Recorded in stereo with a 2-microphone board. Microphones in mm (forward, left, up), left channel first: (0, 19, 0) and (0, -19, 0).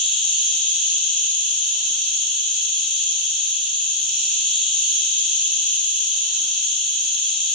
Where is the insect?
5° left (ahead or behind), 1.8 m.